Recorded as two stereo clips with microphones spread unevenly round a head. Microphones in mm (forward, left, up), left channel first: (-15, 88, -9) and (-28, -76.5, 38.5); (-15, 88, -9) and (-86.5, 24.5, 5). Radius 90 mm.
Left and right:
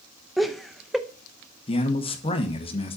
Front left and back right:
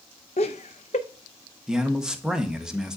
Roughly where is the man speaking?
Behind left.